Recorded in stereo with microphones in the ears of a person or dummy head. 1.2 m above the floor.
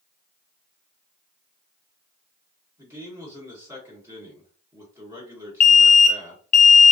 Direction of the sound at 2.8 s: 15° right (ahead or behind).